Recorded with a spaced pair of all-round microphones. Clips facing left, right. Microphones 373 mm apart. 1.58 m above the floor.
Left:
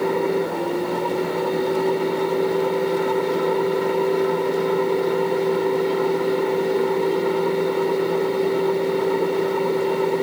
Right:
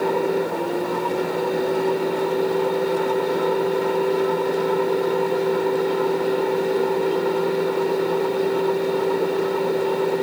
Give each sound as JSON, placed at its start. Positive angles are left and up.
{"t": 0.0, "sound": "a fan", "side_deg": 10}